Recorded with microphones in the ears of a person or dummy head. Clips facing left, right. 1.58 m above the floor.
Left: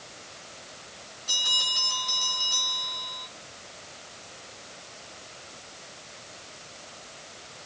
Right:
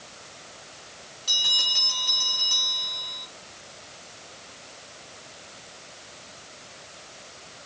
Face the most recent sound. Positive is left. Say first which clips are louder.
# left 1 dB
turn(degrees=-65)  # may be behind; listen again after turning